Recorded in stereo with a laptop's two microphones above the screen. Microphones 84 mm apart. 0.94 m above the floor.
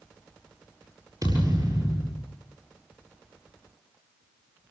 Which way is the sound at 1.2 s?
45° right (ahead or behind).